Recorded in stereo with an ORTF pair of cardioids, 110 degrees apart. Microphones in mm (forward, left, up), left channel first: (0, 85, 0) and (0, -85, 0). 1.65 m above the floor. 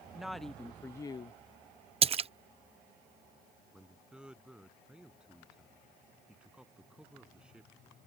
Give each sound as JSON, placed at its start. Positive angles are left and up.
{"t": 0.1, "sound": "a woman speaking", "azimuth_deg": -5}
{"t": 2.0, "sound": "a splash", "azimuth_deg": -35}
{"t": 3.7, "sound": "a man speaking", "azimuth_deg": -5}